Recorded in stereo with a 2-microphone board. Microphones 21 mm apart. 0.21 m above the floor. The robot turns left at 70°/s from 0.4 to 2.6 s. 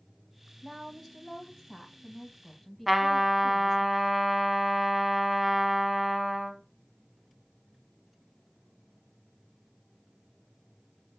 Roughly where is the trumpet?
Centre.